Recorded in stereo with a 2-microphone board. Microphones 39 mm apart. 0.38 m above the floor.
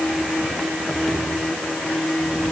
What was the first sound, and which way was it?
Only background noise.